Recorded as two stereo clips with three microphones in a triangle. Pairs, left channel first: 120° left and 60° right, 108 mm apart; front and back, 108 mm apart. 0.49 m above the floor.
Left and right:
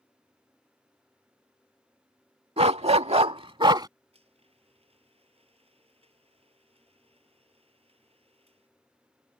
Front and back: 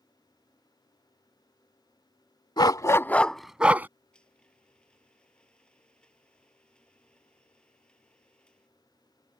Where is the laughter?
I don't hear laughter.